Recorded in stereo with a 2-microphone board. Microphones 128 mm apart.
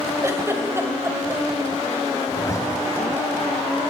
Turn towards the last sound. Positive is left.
turn(degrees=30)  # may be behind; listen again after turning